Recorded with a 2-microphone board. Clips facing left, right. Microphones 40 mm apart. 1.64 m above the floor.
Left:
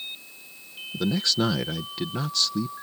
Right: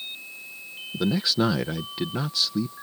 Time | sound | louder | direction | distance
0.9 | a man speaking | right 1 dB | 10° right (ahead or behind) | ?